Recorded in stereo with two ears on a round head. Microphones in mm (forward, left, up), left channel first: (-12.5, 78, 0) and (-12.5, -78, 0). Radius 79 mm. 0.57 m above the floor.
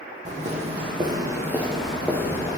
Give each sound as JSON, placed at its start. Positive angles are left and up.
{"t": 0.2, "sound": "footsteps", "side_deg": -45, "distance_m": 1.5}